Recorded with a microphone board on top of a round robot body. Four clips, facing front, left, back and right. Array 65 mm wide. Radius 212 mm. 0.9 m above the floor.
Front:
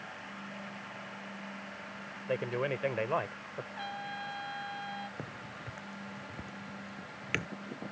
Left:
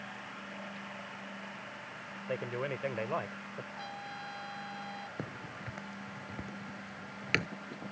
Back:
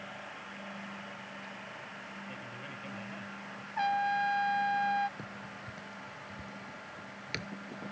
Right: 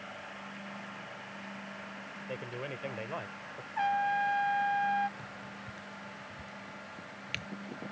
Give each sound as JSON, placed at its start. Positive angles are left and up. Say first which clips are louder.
{"t": 2.3, "sound": "a man speaking", "louder": "left 5 dB, front 12 dB", "azimuth_deg": 20}
{"t": 3.8, "sound": "a trumpet", "louder": "right 14 dB, back 13 dB", "azimuth_deg": -130}
{"t": 5.2, "sound": "a crack", "louder": "left 2 dB, front 1 dB", "azimuth_deg": 75}